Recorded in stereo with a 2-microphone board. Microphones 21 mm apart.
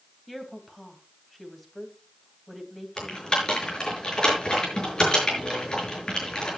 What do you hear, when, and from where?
0.3 s a woman speaking: 5° left (ahead or behind), 3 m
3.0 s typing on a keyboard: 35° left (ahead or behind), 6 m